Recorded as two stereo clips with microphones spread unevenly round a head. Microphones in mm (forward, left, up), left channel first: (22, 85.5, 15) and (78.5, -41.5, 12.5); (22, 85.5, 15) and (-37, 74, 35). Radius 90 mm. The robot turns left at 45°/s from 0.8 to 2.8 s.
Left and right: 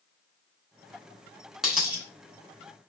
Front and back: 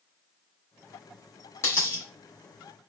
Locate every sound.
1.6 s a dropped coin: 20° left, 1.1 m; by 2.0 s straight ahead, 1.1 m